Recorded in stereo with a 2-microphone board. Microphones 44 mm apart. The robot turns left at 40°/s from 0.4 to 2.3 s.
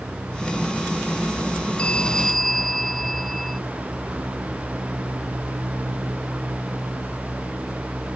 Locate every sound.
1.8 s a bell: 25° left (ahead or behind); by 3.6 s 5° left (ahead or behind)